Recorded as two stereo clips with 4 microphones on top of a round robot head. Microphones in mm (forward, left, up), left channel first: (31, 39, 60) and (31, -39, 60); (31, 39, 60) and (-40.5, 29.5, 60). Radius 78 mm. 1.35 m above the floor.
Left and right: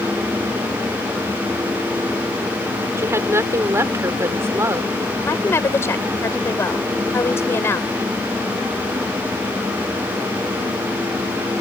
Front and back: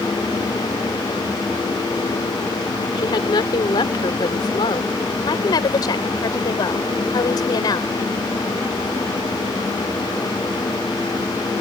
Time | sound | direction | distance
3.0 | a woman speaking | 30° right | ?
5.2 | a woman speaking | 35° left | ?